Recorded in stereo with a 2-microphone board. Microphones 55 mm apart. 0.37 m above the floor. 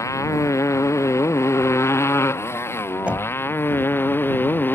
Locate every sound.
0.0 s a motorcycle: 65° left (ahead or behind); by 4.7 s 40° left (ahead or behind)
3.1 s knocking: 25° right (ahead or behind)